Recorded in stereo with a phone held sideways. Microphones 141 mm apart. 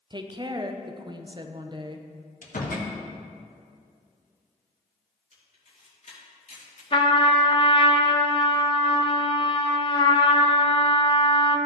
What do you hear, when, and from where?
0.1 s a woman speaking: 30° right (ahead or behind), 0.6 m
2.4 s a door slam: 80° left, 1.3 m
5.3 s a camera shutter: 60° left (ahead or behind), 2.5 m
6.9 s a trumpet: 35° left (ahead or behind), 0.7 m